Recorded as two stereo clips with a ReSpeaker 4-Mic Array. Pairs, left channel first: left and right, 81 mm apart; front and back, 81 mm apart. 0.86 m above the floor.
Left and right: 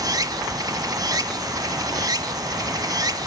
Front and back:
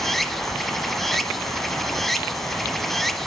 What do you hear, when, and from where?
0.0 s running water: 85° right, 1.0 m